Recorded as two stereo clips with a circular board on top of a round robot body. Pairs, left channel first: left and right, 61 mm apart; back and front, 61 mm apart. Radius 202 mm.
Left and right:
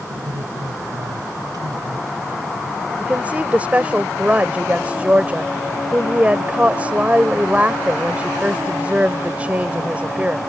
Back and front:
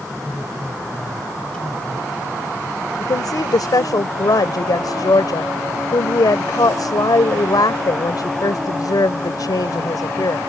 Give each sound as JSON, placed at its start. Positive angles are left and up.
{"t": 0.1, "sound": "a man speaking", "azimuth_deg": -100}
{"t": 3.0, "sound": "a woman speaking", "azimuth_deg": -160}